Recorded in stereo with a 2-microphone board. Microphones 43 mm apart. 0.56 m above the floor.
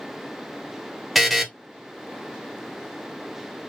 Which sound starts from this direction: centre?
A buzzer, at 1.1 s.